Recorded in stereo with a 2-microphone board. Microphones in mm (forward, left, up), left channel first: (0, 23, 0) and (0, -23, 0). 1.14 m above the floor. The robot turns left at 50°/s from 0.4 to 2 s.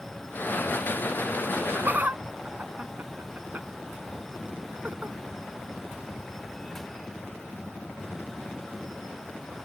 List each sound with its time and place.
1.5 s laughter: 65° right (ahead or behind); by 5.2 s 40° right (ahead or behind)